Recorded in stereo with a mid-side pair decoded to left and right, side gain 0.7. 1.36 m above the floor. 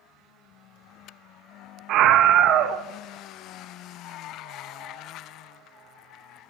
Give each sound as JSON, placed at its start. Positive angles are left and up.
{"t": 1.9, "sound": "a scream", "azimuth_deg": -55, "distance_m": 0.8}